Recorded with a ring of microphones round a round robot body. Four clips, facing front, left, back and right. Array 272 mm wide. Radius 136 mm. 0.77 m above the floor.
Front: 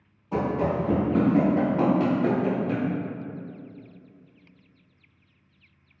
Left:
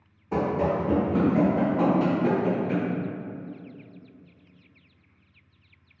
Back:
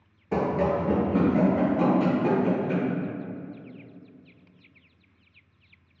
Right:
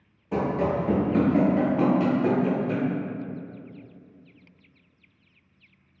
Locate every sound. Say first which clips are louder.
0.3 s running footsteps: even, back 1 dB; 175° left, 0.8 m; by 2.9 s 50° right, 1.6 m